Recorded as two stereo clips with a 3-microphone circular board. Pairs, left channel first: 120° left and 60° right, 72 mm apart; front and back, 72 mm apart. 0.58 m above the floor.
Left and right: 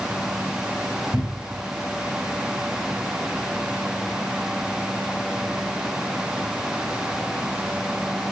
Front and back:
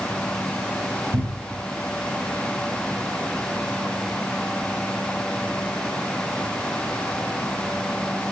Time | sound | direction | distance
1.1 | a cupboard door | 140° right | 1.6 m